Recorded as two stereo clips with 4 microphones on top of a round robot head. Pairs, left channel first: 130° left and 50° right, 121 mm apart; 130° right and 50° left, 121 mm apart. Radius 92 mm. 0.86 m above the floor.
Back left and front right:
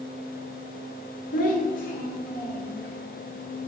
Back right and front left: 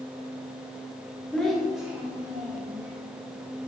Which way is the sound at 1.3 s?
145° left.